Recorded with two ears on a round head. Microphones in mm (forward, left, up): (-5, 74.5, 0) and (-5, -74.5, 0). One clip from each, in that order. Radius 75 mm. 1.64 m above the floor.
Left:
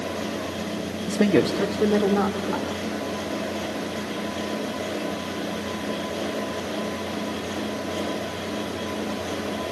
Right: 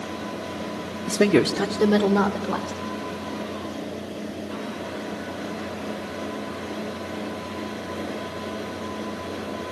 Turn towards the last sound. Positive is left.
turn(degrees=-20)  # may be behind; listen again after turning